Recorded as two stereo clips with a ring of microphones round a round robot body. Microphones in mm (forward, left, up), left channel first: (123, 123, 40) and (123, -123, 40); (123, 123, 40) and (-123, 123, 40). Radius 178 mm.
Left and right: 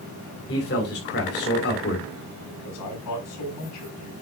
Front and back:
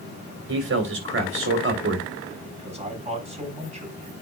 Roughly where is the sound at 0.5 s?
Behind left.